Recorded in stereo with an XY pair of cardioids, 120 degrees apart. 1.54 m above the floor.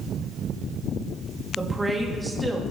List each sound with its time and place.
1.6 s a woman speaking: 10° right, 3 m